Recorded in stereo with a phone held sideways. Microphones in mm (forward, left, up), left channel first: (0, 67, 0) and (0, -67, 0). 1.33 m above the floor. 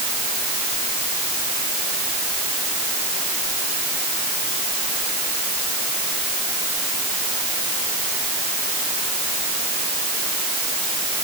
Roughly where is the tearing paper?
No tearing paper in this recording.